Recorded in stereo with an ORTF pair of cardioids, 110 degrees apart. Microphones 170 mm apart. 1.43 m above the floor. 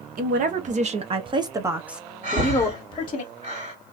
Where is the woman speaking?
55° right, 1.2 m; by 3.2 s 35° left, 1.0 m.